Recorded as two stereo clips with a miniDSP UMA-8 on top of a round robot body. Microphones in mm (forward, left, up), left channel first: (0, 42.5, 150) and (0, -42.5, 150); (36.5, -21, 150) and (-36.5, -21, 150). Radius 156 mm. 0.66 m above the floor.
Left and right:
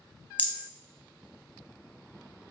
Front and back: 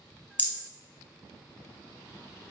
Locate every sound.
0.4 s a rattle: 40° left, 0.9 m